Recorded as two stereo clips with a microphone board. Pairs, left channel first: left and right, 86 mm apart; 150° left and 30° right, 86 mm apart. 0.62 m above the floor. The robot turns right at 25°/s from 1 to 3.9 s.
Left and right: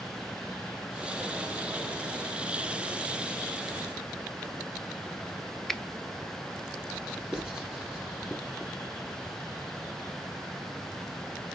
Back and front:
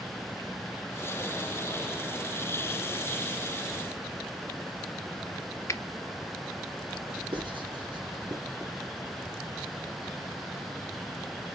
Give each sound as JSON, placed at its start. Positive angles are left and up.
{"t": 5.7, "sound": "a finger snap", "azimuth_deg": 175, "distance_m": 0.6}
{"t": 7.3, "sound": "writing", "azimuth_deg": -10, "distance_m": 4.5}